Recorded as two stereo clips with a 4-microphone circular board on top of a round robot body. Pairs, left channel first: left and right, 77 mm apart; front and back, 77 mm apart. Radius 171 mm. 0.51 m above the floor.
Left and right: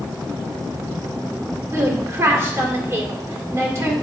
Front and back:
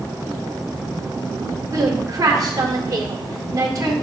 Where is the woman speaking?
140° right, 2.5 m.